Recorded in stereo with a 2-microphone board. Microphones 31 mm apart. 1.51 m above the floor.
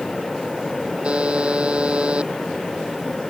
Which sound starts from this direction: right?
A buzzer, at 1.0 s.